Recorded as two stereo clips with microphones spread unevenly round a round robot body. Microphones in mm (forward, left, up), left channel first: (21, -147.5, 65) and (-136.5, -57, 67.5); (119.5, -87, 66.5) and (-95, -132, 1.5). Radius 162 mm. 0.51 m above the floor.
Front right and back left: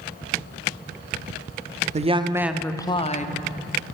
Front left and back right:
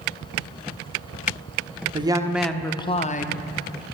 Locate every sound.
1.9 s a woman speaking: 175° left, 0.8 m; by 3.5 s 45° right, 0.9 m